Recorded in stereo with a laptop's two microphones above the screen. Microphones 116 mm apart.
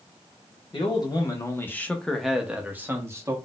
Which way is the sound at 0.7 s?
40° left (ahead or behind).